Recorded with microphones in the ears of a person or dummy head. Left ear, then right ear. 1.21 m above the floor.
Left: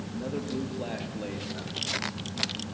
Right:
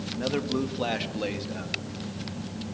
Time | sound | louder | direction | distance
0.1 | a man speaking | right 6 dB | 80° right | 1.5 m